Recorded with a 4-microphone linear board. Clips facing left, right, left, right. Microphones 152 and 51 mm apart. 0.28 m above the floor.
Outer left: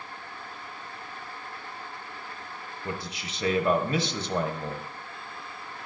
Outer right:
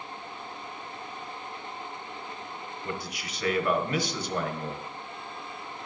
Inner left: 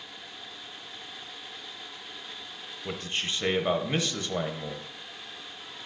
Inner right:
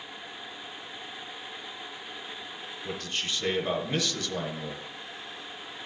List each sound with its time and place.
2.9 s a man speaking: 25° left (ahead or behind), 1.0 m